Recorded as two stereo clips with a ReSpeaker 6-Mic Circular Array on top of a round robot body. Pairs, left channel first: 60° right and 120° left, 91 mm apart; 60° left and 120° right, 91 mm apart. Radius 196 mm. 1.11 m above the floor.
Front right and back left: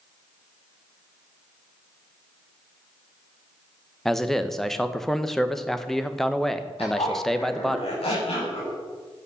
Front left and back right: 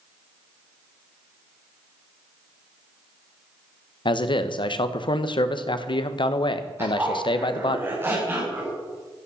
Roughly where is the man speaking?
Ahead left.